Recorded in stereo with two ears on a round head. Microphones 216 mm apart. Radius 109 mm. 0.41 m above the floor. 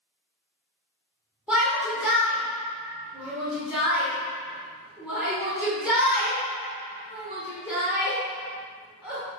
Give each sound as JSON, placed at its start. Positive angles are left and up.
{"t": 1.5, "sound": "a shout", "side_deg": -5, "distance_m": 1.5}